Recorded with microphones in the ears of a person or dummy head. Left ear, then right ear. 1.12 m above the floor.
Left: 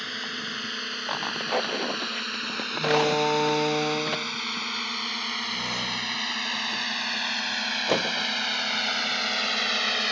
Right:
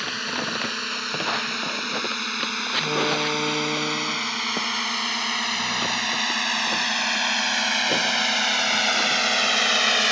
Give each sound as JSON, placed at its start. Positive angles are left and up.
{"t": 0.0, "sound": "a drone", "side_deg": -25}
{"t": 2.8, "sound": "a door slam", "side_deg": 45}